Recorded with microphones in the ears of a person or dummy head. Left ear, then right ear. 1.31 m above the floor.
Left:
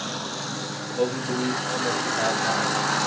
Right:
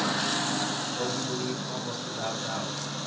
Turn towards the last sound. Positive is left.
turn(degrees=35)  # may be behind; listen again after turning